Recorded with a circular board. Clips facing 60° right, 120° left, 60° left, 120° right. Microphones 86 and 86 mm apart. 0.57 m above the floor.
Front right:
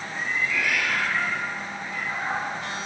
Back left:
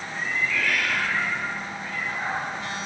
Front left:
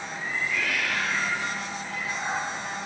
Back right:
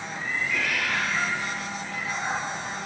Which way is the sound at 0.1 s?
140° right.